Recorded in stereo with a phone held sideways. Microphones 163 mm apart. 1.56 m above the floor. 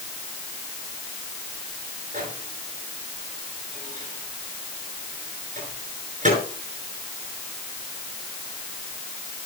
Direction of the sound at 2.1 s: 50° right (ahead or behind).